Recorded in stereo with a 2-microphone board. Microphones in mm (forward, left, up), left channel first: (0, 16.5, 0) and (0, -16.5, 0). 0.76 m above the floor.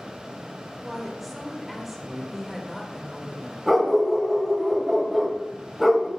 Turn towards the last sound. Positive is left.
turn(degrees=-10)  # may be behind; listen again after turning